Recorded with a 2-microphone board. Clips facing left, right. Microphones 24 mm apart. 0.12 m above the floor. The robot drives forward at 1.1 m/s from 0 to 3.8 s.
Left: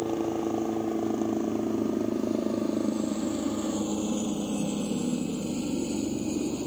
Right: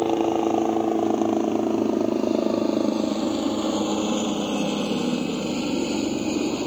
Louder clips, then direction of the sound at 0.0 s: Right 7 dB; 40° right (ahead or behind).